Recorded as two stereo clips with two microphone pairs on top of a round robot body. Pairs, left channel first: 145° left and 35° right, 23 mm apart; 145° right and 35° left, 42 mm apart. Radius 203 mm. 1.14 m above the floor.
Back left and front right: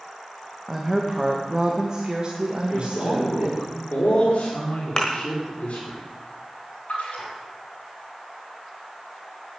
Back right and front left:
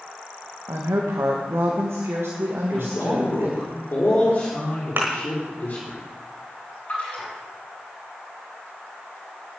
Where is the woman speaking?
55° left, 1.9 m; by 3.7 s 5° right, 3 m.